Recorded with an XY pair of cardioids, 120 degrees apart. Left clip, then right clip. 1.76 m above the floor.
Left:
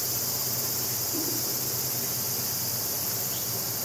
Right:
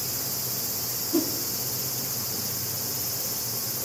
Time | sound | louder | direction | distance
1.1 | a whoosh | right 8 dB | 70° right | 4 m